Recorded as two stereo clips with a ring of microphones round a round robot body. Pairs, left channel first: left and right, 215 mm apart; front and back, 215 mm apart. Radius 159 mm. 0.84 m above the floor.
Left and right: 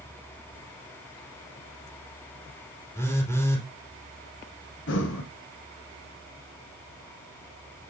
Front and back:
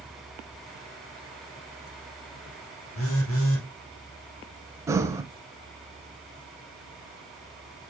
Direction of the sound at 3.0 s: 10° left.